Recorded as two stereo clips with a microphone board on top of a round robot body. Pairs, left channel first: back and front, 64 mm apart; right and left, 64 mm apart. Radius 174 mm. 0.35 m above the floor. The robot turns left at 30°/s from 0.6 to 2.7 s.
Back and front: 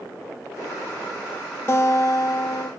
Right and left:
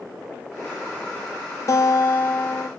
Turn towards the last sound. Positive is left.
turn(degrees=-160)